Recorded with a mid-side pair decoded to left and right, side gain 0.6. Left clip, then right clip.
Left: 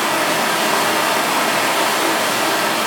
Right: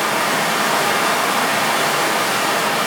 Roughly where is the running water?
Ahead.